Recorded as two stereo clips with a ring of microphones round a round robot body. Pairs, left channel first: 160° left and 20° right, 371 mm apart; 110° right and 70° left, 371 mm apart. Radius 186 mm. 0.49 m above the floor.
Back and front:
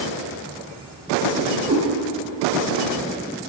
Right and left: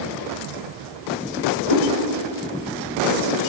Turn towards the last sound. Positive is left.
turn(degrees=-90)